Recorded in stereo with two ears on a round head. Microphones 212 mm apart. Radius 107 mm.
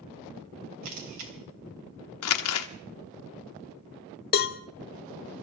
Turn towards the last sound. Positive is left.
turn(degrees=40)  # may be behind; listen again after turning